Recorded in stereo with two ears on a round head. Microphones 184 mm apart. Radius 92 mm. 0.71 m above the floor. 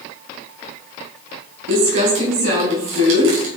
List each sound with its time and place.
1.7 s crumpling: 65° right (ahead or behind), 6.5 m